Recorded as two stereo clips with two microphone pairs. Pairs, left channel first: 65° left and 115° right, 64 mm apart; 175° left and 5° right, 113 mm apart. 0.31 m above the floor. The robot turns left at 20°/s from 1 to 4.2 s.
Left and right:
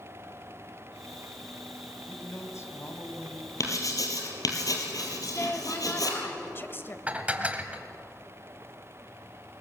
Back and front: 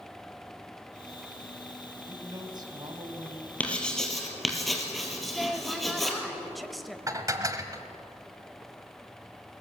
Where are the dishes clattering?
55° right, 1.1 m.